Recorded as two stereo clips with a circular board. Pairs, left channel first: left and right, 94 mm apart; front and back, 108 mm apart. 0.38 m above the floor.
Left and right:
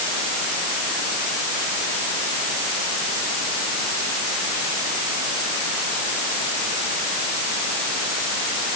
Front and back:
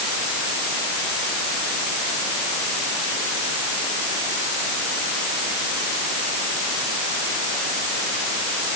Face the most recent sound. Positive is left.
No sound to turn to.